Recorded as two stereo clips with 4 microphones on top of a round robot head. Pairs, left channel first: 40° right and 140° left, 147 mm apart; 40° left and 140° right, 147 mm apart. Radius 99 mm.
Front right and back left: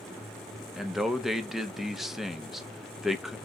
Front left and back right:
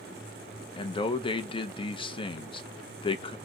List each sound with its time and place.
0.8 s a man speaking: 55° left, 0.7 m